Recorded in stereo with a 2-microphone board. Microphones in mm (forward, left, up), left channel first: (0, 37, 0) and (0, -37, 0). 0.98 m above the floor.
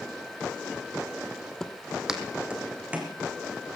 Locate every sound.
1.6 s footsteps: 5° left (ahead or behind), 1.3 m; by 3.2 s 20° right (ahead or behind), 3 m